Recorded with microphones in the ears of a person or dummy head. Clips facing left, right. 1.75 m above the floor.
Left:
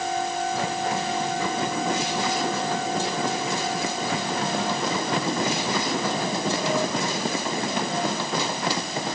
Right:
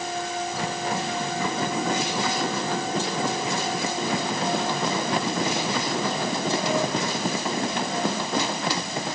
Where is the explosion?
No explosion in this recording.